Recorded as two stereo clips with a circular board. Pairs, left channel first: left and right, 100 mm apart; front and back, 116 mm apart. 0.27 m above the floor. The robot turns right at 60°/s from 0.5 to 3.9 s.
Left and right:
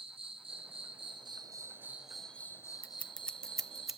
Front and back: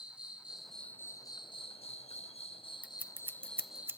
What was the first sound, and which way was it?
An insect, 100° right.